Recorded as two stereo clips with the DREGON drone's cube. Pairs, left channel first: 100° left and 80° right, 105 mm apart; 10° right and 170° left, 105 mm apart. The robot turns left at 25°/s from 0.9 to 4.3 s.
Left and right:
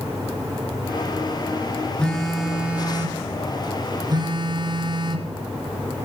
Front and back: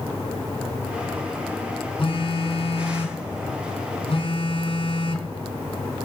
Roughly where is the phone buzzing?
Ahead.